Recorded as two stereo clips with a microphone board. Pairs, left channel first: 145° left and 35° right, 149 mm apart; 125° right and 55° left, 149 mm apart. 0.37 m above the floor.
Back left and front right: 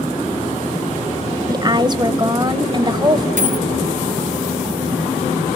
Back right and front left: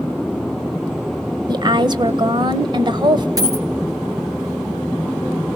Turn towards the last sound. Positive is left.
turn(degrees=-10)